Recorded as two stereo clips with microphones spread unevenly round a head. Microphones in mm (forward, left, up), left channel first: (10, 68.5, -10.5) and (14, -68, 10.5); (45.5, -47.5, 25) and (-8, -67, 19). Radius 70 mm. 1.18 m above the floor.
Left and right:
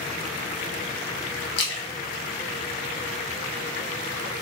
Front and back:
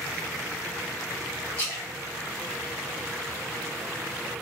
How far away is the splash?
About 0.8 m.